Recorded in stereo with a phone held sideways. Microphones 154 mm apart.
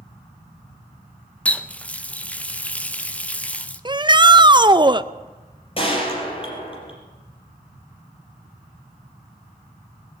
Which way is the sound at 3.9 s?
30° right (ahead or behind).